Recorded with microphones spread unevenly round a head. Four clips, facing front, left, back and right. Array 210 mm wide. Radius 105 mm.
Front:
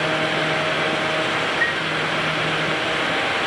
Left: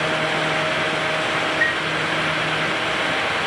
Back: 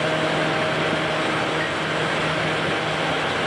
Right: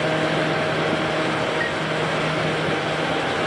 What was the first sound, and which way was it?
A chime, 160° right.